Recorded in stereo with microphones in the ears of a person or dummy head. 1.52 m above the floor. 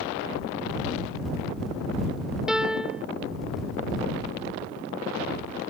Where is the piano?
5° right (ahead or behind).